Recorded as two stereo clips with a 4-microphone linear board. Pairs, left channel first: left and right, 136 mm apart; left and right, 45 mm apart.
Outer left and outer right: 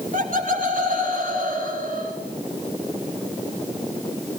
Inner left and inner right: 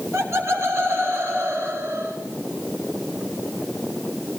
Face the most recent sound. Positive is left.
turn(degrees=-75)  # may be behind; listen again after turning